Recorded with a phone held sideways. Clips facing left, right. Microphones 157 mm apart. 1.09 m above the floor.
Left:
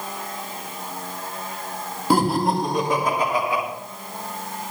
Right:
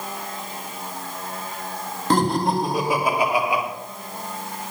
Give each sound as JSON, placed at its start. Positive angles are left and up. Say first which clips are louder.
{"t": 2.1, "sound": "laughter", "louder": "left 1 dB", "side_deg": 10, "distance_m": 1.9}